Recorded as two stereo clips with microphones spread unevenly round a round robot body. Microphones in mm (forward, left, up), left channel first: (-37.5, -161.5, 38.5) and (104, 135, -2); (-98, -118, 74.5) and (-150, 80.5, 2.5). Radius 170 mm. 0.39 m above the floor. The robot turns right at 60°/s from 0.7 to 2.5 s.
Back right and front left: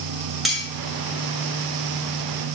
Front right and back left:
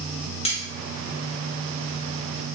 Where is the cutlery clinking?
5° right, 0.6 m.